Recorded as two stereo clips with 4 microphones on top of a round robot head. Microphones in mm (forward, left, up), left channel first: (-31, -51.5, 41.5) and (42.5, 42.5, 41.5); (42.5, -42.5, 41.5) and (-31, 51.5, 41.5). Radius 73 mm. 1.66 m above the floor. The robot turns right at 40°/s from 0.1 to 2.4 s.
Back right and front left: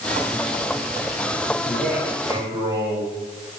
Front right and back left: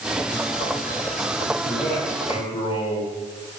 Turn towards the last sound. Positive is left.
turn(degrees=-10)